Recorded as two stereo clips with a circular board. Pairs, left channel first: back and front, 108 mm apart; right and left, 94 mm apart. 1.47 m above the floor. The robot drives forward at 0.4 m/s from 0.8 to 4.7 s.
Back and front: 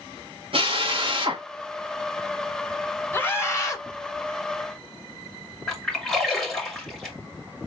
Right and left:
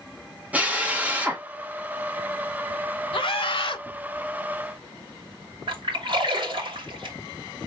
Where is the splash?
95° left, 2 m.